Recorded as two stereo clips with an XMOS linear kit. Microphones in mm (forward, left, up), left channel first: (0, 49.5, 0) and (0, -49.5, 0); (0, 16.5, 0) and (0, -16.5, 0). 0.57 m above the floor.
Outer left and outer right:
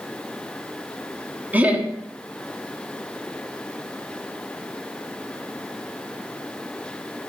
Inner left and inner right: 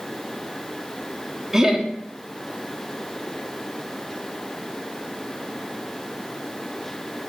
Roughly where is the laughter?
Centre.